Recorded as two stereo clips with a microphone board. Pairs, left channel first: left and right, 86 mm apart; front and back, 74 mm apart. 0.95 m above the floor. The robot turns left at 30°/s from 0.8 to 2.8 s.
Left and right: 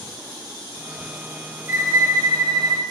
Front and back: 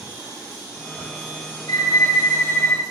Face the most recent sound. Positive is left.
turn(degrees=-55)